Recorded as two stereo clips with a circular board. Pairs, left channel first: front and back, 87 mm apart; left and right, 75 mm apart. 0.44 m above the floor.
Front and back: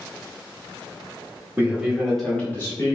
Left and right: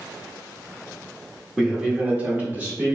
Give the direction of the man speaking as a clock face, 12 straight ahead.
5 o'clock.